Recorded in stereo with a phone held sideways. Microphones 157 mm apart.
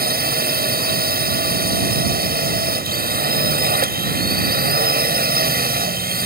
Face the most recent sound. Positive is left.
turn(degrees=-75)  # may be behind; listen again after turning